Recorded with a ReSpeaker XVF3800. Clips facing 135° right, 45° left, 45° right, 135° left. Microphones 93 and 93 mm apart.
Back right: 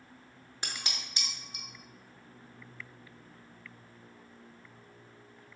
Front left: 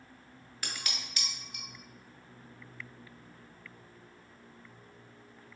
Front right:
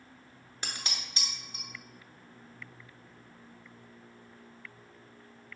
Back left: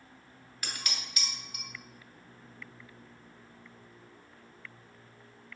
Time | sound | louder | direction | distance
0.6 | dishes clattering | even, even | 85° right | 0.6 m